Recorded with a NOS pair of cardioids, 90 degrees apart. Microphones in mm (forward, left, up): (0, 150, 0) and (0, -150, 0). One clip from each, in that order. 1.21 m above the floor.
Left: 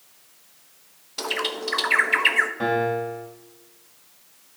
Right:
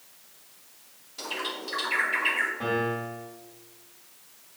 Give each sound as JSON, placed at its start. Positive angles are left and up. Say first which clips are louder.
{"t": 1.2, "sound": "a bird", "louder": "left 6 dB", "azimuth_deg": 65, "distance_m": 1.1}
{"t": 2.6, "sound": "a piano", "louder": "left 5 dB", "azimuth_deg": 55, "distance_m": 3.0}